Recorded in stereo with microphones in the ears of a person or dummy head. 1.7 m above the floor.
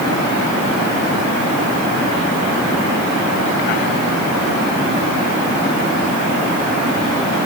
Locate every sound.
Only background noise.